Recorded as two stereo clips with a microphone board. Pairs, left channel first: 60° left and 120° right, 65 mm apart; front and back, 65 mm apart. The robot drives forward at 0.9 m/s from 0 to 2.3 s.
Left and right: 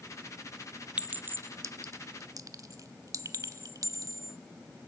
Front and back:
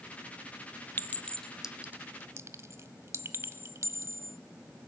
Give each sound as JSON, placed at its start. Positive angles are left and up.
{"t": 1.0, "sound": "a clink", "azimuth_deg": -55, "distance_m": 0.9}